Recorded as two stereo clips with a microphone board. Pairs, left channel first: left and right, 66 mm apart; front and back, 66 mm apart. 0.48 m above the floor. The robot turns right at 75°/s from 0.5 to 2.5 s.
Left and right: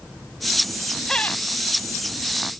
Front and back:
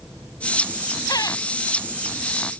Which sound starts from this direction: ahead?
Laughter, at 1.1 s.